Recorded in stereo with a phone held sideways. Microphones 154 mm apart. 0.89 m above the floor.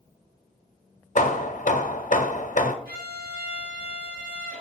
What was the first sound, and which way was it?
Hammering, 55° left (ahead or behind).